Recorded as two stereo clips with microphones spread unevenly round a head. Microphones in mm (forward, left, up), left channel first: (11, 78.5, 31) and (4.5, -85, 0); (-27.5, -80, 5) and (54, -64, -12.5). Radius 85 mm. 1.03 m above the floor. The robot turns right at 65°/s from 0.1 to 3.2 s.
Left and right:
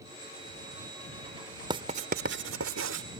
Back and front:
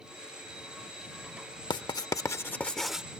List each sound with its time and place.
1.7 s writing: 160° right; by 3.0 s 75° right